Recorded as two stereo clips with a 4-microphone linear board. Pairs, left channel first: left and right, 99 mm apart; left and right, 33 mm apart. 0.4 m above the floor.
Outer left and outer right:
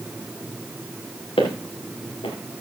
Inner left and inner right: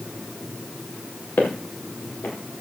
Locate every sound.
1.4 s footsteps: 70° left (ahead or behind), 4.5 m